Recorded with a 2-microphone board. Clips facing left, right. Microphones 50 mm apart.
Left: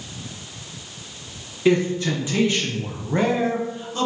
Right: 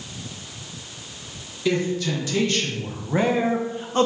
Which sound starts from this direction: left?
A man speaking, at 1.6 s.